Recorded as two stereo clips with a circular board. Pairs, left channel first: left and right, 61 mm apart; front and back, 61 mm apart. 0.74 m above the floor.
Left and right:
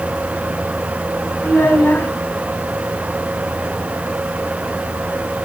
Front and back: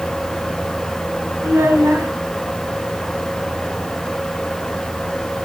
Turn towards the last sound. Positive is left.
turn(degrees=145)